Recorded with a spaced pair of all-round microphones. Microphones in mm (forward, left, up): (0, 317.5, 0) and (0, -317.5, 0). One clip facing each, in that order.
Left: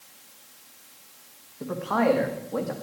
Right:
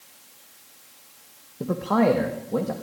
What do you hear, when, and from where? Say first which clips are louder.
1.6 s a man speaking: right 4 dB; 70° right (ahead or behind), 1.5 m; by 2.7 s 65° right (ahead or behind), 2 m